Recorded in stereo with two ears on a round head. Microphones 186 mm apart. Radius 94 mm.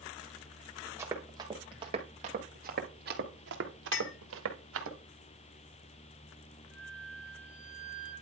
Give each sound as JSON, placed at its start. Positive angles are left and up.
{"t": 1.0, "sound": "running footsteps", "side_deg": -15, "distance_m": 2.5}
{"t": 3.9, "sound": "a clink", "side_deg": 60, "distance_m": 1.0}
{"t": 6.7, "sound": "a flute", "side_deg": 65, "distance_m": 6.5}